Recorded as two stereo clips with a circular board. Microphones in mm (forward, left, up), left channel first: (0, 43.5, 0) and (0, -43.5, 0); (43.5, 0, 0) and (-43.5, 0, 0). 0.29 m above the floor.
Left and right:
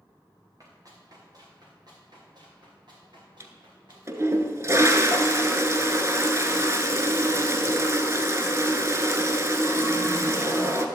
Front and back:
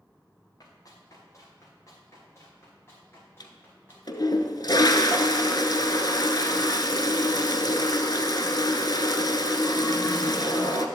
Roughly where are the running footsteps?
Ahead right.